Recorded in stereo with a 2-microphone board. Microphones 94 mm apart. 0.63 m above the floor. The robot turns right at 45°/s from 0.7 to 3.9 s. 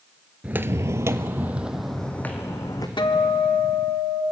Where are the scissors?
No scissors in this recording.